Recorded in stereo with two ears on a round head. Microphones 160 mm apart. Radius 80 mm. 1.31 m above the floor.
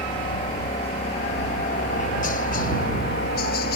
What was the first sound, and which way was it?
A helicopter, 30° left (ahead or behind).